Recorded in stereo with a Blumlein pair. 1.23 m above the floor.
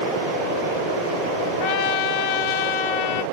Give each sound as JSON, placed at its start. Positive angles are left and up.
{"t": 1.6, "sound": "a trumpet", "azimuth_deg": 45, "distance_m": 0.6}